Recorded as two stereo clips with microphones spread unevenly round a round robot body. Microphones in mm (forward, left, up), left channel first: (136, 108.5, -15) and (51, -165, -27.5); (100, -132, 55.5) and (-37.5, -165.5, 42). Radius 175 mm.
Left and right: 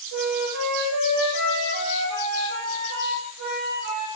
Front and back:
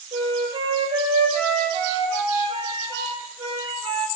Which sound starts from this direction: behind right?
A flute, at 0.1 s.